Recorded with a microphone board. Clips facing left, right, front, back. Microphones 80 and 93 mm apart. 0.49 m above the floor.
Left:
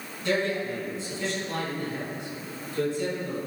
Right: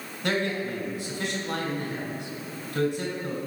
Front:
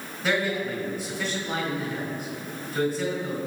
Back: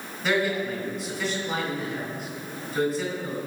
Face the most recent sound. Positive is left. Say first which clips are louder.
# left 1 dB, back 1 dB
turn(degrees=-85)